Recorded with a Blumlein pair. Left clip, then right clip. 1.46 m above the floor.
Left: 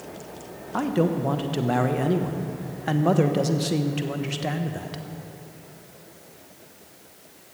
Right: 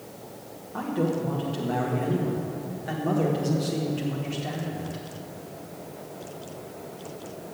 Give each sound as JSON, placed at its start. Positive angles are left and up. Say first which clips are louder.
{"t": 0.7, "sound": "a man speaking", "louder": "left 4 dB", "azimuth_deg": 60, "distance_m": 1.0}